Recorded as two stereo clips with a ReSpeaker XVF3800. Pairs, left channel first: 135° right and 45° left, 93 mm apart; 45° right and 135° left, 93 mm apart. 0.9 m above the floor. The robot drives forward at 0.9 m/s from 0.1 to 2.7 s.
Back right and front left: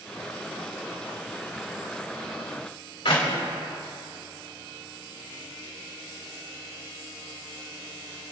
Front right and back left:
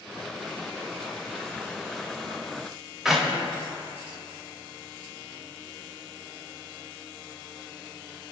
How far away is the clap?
About 3 m.